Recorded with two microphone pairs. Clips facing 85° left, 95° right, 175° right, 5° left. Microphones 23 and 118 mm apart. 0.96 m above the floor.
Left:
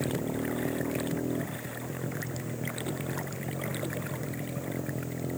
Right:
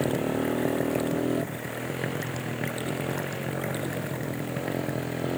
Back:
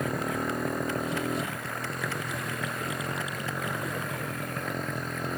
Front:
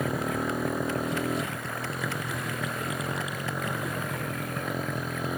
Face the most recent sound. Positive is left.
turn(degrees=-80)